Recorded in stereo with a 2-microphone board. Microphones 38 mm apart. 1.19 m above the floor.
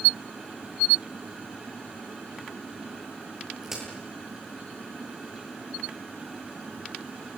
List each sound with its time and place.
3.6 s a crack: 10° right (ahead or behind), 10 m